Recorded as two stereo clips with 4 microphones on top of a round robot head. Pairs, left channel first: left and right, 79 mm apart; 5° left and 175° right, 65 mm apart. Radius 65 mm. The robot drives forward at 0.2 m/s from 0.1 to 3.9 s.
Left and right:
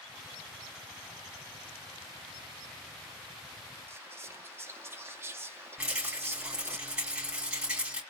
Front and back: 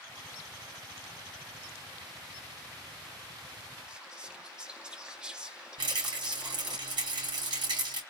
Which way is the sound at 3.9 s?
110° right.